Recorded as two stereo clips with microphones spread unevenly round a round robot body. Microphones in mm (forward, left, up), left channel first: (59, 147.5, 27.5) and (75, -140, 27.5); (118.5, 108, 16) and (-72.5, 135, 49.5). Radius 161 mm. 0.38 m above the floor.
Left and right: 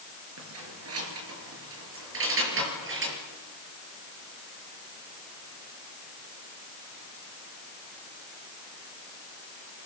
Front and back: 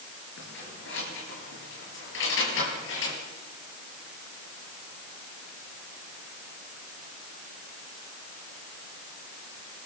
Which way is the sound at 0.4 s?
50° right.